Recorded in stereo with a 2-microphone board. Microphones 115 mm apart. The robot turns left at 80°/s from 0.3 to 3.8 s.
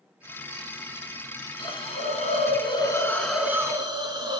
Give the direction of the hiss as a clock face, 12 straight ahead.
7 o'clock.